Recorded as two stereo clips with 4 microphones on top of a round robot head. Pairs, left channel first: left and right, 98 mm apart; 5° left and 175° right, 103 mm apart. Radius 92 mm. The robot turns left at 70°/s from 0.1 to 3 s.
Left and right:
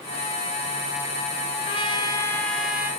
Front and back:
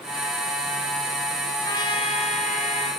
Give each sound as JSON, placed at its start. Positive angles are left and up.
{"t": 1.6, "sound": "a trumpet", "azimuth_deg": 70, "distance_m": 2.0}